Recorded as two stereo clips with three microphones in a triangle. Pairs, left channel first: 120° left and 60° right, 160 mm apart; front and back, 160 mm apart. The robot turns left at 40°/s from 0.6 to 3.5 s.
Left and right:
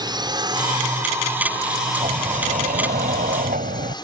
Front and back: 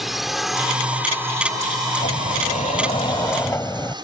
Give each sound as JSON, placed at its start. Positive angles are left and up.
{"t": 0.0, "sound": "a drone", "azimuth_deg": -90}
{"t": 2.0, "sound": "a sliding door", "azimuth_deg": -10}